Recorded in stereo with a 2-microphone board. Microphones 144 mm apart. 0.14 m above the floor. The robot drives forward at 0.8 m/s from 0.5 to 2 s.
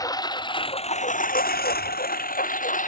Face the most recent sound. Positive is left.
turn(degrees=60)  # may be behind; listen again after turning